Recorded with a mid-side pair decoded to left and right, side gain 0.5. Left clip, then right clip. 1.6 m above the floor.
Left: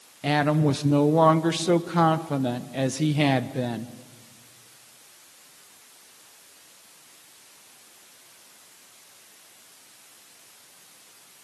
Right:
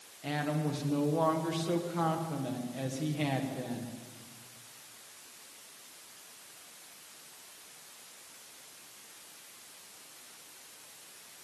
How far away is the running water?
I don't hear running water.